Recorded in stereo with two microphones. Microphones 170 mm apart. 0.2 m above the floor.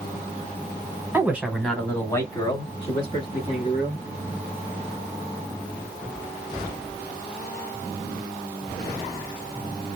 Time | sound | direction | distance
1.1 | a man speaking | 15° right (ahead or behind) | 1.0 m